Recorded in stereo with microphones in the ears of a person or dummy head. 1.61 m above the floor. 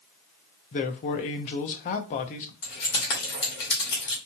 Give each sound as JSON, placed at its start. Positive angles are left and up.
{"t": 0.7, "sound": "a man speaking", "side_deg": 35, "distance_m": 0.5}
{"t": 2.6, "sound": "keys jangling", "side_deg": 60, "distance_m": 1.5}